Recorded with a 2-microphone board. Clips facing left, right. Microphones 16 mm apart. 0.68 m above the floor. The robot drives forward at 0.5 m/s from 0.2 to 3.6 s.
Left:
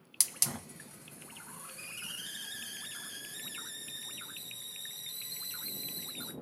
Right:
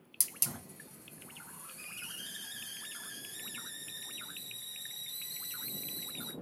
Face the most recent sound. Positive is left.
turn(degrees=10)  # may be behind; listen again after turning